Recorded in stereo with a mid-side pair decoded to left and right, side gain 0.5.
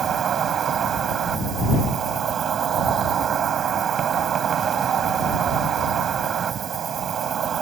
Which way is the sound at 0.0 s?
45° right.